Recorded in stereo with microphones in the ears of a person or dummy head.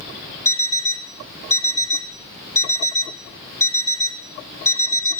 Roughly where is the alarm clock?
Centre.